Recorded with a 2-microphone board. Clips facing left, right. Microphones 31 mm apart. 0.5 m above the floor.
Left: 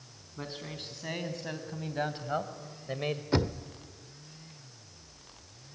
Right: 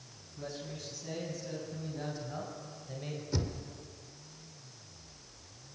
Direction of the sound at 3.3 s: 55° left (ahead or behind).